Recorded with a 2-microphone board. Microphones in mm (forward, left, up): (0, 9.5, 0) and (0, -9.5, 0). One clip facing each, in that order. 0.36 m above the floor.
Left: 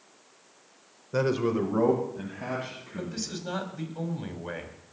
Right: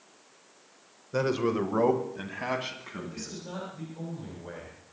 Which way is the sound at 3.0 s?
40° left (ahead or behind).